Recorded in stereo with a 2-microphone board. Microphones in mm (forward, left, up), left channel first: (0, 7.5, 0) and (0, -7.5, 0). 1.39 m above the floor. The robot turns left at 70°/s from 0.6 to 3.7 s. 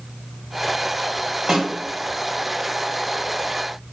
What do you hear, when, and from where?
1.5 s a snare drum: 60° right (ahead or behind), 1.5 m; by 1.7 s 45° right (ahead or behind), 1.5 m